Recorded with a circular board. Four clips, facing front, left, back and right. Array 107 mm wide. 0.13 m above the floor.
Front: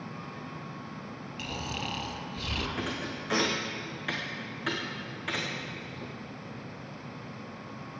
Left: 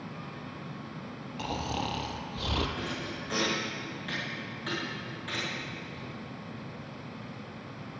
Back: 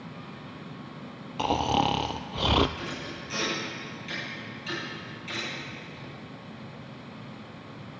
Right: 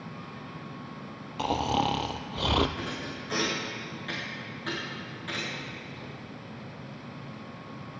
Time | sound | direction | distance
1.4 | snoring | 155° right | 0.6 m
2.8 | a thud | straight ahead | 3.5 m